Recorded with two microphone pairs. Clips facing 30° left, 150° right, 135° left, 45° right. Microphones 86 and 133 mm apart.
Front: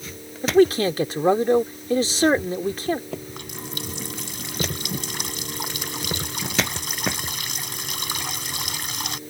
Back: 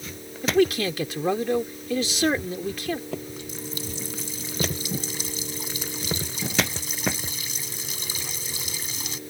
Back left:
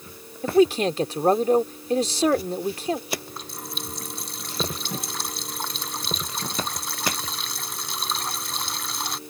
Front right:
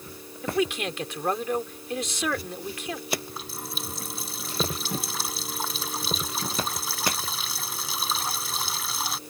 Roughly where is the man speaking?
Left.